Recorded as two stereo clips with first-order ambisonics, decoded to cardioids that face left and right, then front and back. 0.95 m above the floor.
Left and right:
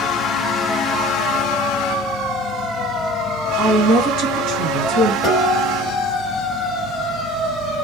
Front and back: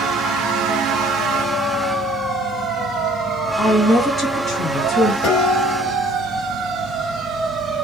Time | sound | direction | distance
3.6 | a woman speaking | 50° right | 1.5 m
5.2 | dishes clattering | 5° left | 1.3 m